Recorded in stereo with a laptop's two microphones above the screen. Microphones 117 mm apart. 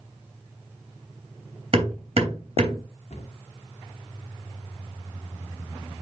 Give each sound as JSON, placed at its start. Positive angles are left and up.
{"t": 1.7, "sound": "hammering", "side_deg": -55, "distance_m": 3.0}
{"t": 3.1, "sound": "a cupboard door", "side_deg": 85, "distance_m": 1.8}